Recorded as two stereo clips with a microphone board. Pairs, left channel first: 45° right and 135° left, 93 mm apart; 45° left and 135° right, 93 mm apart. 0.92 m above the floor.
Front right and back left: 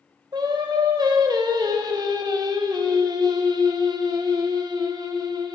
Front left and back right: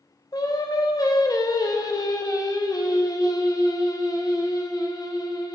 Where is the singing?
90° left, 1.1 m.